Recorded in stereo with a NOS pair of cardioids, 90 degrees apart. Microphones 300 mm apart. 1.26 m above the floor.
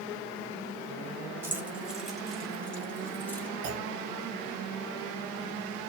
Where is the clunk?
65° right, 1.2 m.